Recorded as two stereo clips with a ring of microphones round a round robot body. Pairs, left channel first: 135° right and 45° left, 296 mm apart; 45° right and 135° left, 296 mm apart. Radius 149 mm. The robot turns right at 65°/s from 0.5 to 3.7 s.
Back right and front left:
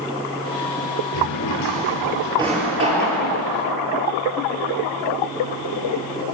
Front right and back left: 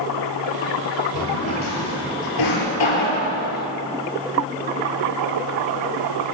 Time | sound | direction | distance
1.1 | a drawer | 115° right | 8 m